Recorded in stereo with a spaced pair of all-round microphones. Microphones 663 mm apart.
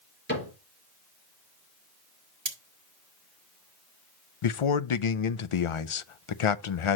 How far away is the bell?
No bell in this recording.